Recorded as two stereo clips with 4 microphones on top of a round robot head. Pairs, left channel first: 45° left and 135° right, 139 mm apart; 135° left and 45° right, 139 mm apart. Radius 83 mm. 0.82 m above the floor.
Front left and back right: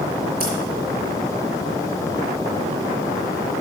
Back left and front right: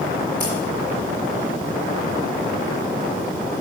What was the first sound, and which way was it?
Scissors, 150° right.